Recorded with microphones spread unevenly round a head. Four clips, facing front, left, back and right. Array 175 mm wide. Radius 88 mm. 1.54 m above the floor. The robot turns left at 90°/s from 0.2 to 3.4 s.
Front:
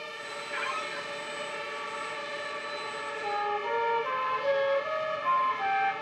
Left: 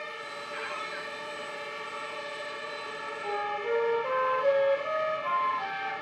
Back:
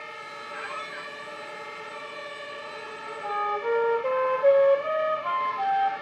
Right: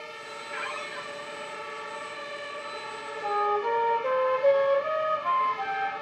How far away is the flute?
About 3 m.